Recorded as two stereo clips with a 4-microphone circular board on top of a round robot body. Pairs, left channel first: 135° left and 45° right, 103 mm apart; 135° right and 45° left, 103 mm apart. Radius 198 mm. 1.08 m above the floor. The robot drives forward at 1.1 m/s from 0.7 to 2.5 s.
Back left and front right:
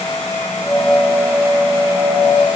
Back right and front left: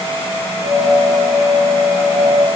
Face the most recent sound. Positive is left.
No sound to turn to.